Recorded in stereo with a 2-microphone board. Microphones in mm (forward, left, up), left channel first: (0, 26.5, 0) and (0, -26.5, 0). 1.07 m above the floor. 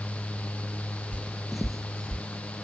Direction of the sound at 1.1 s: 25° right (ahead or behind).